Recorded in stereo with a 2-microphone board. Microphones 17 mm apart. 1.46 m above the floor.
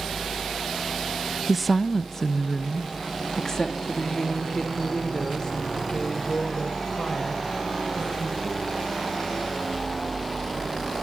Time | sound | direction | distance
1.5 | a woman speaking | 15° right (ahead or behind) | 0.6 m